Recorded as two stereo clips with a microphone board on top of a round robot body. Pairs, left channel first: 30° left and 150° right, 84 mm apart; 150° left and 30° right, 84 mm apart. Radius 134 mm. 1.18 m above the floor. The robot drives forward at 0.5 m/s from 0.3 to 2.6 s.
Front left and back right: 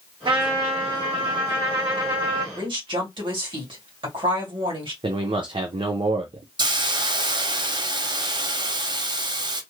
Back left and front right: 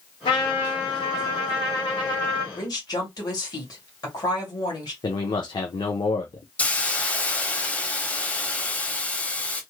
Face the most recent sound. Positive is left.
turn(degrees=-140)